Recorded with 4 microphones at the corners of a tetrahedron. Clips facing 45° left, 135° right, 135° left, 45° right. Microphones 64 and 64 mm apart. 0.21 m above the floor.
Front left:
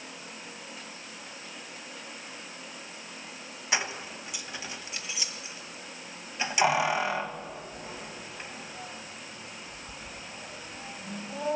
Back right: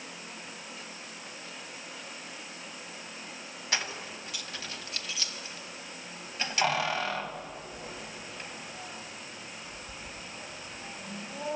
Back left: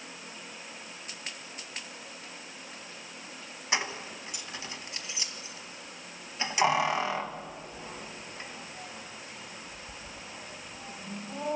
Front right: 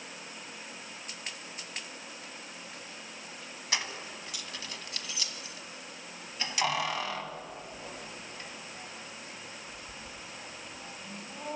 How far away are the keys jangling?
About 0.9 m.